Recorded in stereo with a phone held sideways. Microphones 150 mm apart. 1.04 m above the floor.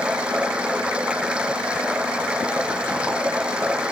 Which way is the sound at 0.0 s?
5° right (ahead or behind).